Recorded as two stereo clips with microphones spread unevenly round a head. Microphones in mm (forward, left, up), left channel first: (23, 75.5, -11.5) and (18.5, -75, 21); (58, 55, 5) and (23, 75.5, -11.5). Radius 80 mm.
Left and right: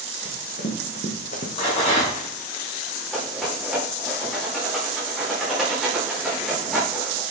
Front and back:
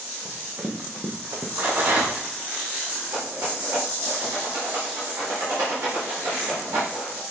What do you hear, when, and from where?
0.2 s running footsteps: 125° left, 3.5 m; by 1.5 s 140° left, 2 m
1.6 s a rattle: 145° left, 5 m
3.1 s a rattle: 175° left, 3.5 m